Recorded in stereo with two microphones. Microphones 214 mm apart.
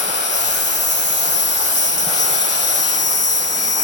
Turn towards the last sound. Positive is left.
turn(degrees=55)  # may be behind; listen again after turning